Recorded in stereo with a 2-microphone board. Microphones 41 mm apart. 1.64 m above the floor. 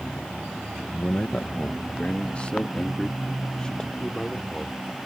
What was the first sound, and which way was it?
A man speaking, 65° left (ahead or behind).